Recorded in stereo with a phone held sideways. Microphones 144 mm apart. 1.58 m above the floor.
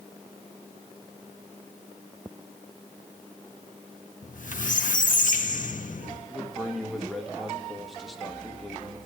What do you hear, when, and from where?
4.2 s a squeak: 65° left (ahead or behind), 1.4 m
6.3 s a man speaking: centre (ahead or behind), 2 m